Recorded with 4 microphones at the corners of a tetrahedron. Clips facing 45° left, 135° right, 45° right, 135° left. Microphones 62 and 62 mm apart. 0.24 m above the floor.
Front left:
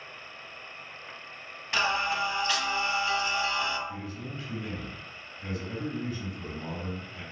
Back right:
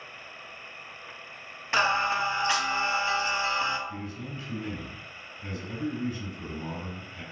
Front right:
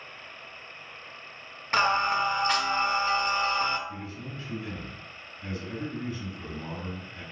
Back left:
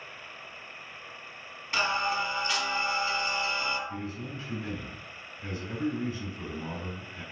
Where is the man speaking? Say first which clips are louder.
Back right 1 dB, back left 2 dB; 75° left, 1.7 m.